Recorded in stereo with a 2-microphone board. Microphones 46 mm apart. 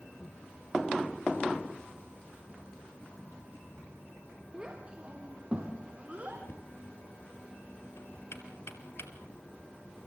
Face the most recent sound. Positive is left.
turn(degrees=75)  # may be behind; listen again after turning